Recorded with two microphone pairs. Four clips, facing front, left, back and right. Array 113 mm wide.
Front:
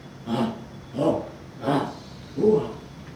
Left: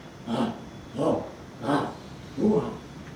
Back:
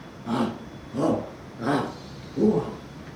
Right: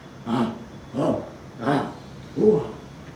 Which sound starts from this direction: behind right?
A shout, at 0.3 s.